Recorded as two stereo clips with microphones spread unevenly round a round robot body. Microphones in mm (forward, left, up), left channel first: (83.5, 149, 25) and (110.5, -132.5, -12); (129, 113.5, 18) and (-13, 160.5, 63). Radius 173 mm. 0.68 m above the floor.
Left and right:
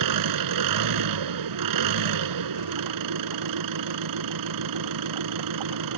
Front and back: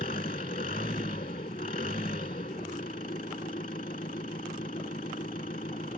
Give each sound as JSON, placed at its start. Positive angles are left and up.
{"t": 0.0, "sound": "an engine running", "azimuth_deg": -90}